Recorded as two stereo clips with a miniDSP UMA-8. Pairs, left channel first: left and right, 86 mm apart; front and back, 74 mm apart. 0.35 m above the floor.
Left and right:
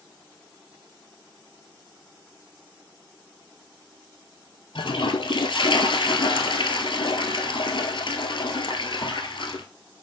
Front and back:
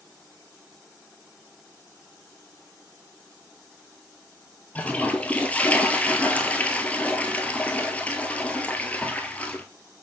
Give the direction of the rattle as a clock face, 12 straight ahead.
I don't hear a rattle.